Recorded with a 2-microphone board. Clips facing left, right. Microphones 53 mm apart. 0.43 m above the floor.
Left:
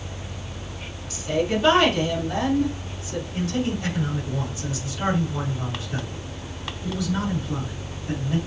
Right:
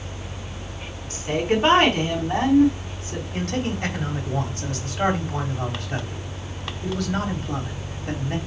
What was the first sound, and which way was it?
A woman speaking, 40° right (ahead or behind).